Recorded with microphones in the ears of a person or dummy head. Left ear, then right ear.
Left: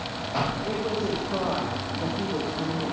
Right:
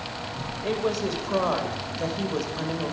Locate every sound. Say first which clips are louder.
0.6 s a woman speaking: right 1 dB; 80° right, 2.5 m